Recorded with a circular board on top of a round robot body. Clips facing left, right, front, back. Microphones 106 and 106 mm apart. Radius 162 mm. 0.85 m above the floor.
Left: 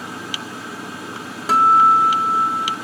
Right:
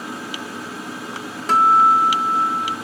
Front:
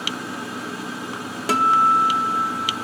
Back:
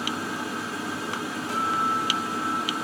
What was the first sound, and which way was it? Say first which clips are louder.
A guitar: left 1 dB, front 10 dB; 5° left.